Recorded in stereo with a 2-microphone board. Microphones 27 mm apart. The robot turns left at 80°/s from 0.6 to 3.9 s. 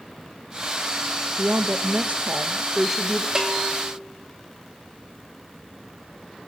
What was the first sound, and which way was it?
A woman speaking, 45° right.